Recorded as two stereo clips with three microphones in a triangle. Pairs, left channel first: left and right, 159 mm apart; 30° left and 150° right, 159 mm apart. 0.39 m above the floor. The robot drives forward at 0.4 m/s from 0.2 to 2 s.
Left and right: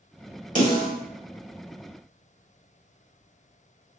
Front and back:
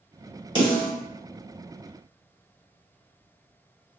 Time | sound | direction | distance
0.6 | a snare drum | 95° right | 1.7 m